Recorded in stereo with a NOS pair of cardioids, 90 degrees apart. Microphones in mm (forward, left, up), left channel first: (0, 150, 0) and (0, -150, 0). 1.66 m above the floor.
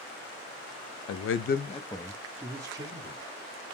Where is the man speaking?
60° left, 0.6 m; by 3.2 s 20° right, 1.2 m.